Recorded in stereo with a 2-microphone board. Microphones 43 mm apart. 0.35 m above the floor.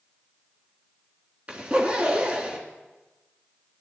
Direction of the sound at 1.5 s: 30° right (ahead or behind).